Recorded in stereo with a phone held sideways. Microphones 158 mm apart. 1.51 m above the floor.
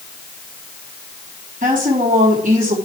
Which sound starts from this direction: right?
A woman speaking, at 1.6 s.